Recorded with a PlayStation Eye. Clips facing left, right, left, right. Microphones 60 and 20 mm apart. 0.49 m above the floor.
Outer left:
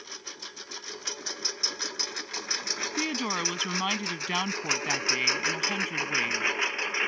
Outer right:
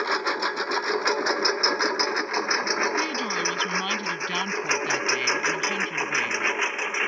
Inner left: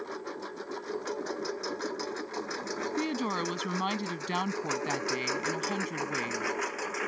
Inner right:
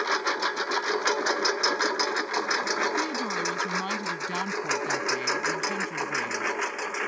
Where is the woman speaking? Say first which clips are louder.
Outer right 4 dB, inner right 3 dB; 10° left (ahead or behind).